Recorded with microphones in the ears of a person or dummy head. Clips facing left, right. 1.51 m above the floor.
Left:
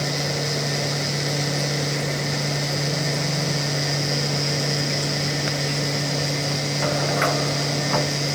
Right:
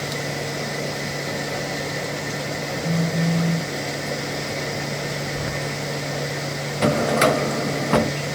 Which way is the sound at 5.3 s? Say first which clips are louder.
Left 1 dB; 80° right.